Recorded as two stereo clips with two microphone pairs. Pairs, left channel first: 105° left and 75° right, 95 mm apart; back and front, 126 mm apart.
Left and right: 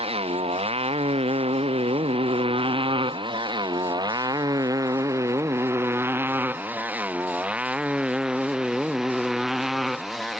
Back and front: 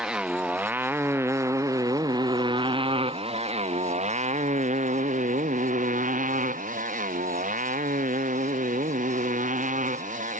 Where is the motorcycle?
85° right; by 10.4 s 15° left.